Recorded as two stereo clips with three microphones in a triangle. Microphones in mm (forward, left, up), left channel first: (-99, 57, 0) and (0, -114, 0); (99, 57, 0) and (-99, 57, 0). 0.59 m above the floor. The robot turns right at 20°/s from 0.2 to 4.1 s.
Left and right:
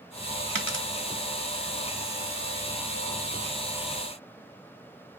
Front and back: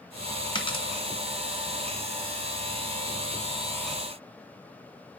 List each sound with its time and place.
0.6 s a dropped coin: 65° right, 1.8 m; by 0.8 s 60° right, 1.8 m